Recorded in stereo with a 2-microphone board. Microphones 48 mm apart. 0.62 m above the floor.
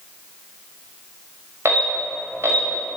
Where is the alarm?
70° right (ahead or behind), 4.5 m.